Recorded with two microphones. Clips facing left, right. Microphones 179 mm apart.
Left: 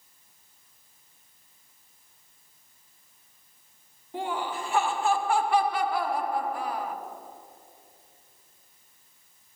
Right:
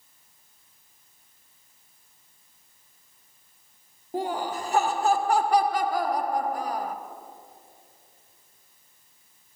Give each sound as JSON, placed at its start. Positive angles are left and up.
{"t": 4.1, "sound": "laughter", "side_deg": -40, "distance_m": 0.9}